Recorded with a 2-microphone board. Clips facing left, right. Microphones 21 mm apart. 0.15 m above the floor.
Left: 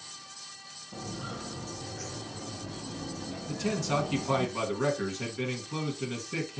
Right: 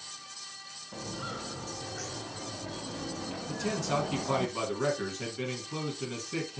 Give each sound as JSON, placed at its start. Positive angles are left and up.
{"t": 0.9, "sound": "footsteps", "side_deg": -45, "distance_m": 2.5}
{"t": 3.5, "sound": "a man speaking", "side_deg": 10, "distance_m": 1.4}